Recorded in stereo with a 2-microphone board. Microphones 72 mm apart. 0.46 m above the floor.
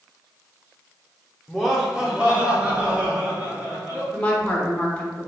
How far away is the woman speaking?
About 1.0 m.